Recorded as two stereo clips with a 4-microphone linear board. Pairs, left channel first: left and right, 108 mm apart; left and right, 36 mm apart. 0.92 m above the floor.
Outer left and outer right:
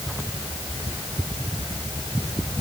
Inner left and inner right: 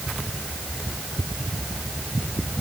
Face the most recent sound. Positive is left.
No sound to turn to.